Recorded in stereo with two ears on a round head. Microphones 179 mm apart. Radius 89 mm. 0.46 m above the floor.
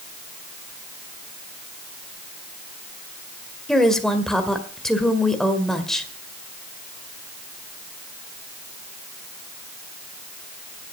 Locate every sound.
3.7 s a woman speaking: 5° left (ahead or behind), 1.8 m